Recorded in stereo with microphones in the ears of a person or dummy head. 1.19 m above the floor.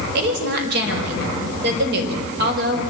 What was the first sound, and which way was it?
A woman speaking, 60° right (ahead or behind).